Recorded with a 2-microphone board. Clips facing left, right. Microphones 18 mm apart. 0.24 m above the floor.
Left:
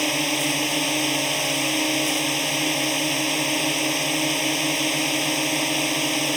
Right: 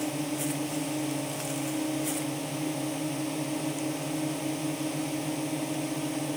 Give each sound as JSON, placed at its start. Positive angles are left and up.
{"t": 0.0, "sound": "a drone", "side_deg": 70}